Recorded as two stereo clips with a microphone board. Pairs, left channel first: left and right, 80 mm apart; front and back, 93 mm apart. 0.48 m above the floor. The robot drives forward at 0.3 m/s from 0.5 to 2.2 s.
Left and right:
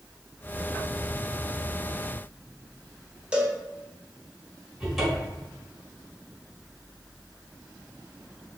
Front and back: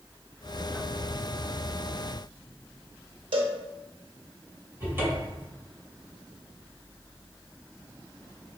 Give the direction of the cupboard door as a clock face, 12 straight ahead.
6 o'clock.